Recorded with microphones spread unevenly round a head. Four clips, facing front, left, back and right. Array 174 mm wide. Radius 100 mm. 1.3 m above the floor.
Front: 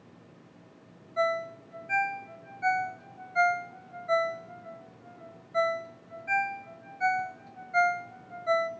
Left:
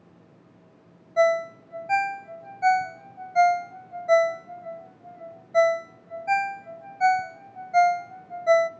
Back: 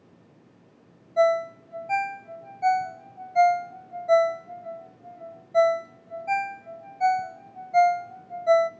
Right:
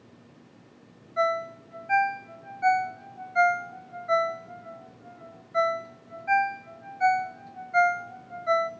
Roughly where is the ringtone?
Behind left.